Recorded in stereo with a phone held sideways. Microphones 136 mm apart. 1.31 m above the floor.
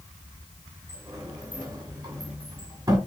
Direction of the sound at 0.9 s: 25° right (ahead or behind).